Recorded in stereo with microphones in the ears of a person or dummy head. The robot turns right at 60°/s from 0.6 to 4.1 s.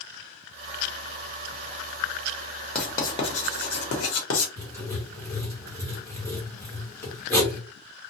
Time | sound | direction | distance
2.8 | writing | 5° left (ahead or behind) | 1.0 m
4.6 | writing | 15° left (ahead or behind) | 0.9 m